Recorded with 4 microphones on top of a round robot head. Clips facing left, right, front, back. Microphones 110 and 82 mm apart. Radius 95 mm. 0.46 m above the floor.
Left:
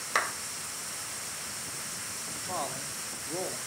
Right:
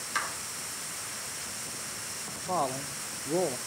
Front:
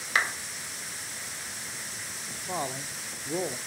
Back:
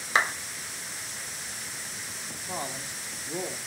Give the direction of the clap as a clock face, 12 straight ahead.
8 o'clock.